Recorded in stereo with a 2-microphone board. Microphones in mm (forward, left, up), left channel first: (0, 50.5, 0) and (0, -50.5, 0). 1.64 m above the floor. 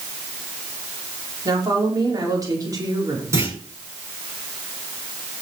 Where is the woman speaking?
35° right (ahead or behind), 5 m.